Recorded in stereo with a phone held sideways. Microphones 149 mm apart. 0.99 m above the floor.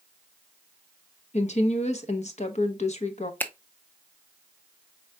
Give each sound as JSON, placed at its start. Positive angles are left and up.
{"t": 1.3, "sound": "a woman speaking", "side_deg": 55, "distance_m": 0.8}
{"t": 3.4, "sound": "a finger snap", "side_deg": 15, "distance_m": 0.5}